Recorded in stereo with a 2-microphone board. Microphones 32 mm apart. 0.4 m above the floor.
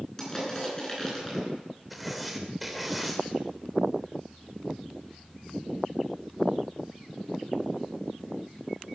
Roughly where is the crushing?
Centre.